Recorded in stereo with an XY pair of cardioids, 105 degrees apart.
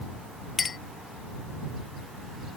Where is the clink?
35° left.